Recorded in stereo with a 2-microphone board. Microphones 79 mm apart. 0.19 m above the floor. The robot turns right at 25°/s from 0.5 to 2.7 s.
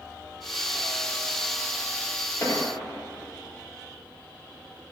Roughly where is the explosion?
Left.